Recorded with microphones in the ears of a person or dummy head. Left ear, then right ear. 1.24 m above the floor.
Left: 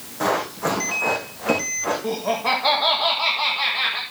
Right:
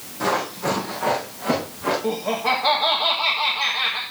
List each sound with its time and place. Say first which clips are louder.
0.2 s running footsteps: left 1 dB; 25° left (ahead or behind), 4 m
2.0 s laughter: left 1 dB; 5° left (ahead or behind), 1.4 m